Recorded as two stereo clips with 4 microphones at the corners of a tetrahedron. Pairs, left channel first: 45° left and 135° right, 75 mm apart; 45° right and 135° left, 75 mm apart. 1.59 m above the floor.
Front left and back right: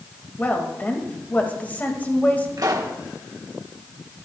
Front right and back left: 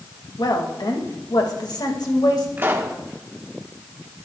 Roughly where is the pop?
Behind.